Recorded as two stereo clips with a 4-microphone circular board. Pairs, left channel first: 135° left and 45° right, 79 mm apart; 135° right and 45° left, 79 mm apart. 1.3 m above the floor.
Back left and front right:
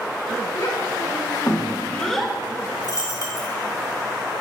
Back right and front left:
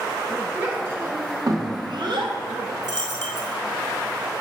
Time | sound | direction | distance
0.6 | a child speaking | 110° left | 2.5 m
2.8 | a dropped coin | 150° left | 2 m